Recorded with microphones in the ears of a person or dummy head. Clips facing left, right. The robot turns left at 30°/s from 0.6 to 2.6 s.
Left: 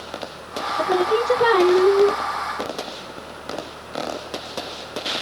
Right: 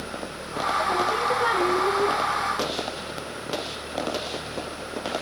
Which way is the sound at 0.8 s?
110° left.